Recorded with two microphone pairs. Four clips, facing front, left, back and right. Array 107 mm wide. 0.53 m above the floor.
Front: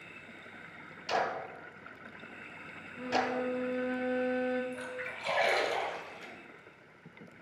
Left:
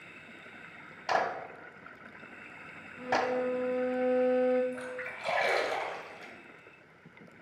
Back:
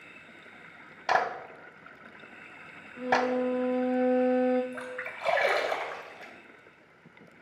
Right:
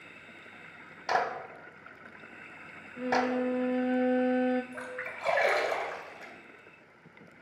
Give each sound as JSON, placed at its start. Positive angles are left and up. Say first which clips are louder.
{"t": 1.1, "sound": "a clap", "louder": "even, back 5 dB", "azimuth_deg": -170, "distance_m": 1.1}
{"t": 3.0, "sound": "a violin", "louder": "right 1 dB, back 5 dB", "azimuth_deg": -100, "distance_m": 1.5}
{"t": 4.7, "sound": "a splash", "louder": "left 1 dB, back 2 dB", "azimuth_deg": -135, "distance_m": 1.9}